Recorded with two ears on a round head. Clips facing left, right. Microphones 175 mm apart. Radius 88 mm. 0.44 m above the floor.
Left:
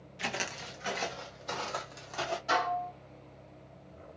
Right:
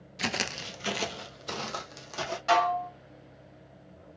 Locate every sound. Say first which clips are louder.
0.2 s footsteps: right 4 dB; 50° right (ahead or behind), 0.6 m; by 2.4 s 30° right (ahead or behind), 1.5 m
2.5 s dishes clattering: right 7 dB; 70° right (ahead or behind), 1.4 m